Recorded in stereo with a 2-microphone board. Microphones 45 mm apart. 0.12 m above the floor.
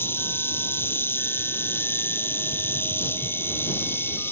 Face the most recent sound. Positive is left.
turn(degrees=60)  # may be behind; listen again after turning